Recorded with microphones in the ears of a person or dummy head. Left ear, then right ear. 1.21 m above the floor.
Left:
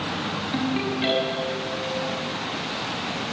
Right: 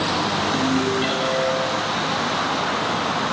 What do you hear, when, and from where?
0.5 s a ringtone: 10° right (ahead or behind), 7 m